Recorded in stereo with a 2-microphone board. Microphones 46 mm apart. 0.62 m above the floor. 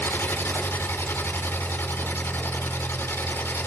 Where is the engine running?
70° left (ahead or behind), 8 m.